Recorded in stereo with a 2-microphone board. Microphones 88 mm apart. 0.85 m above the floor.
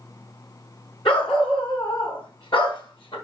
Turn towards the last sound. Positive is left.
turn(degrees=65)  # may be behind; listen again after turning